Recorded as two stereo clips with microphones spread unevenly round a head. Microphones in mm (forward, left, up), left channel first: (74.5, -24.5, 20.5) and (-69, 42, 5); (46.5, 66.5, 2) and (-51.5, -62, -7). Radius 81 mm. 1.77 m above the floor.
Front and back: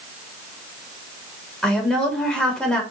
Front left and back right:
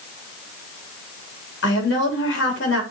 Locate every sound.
1.6 s a woman speaking: 60° left, 3.5 m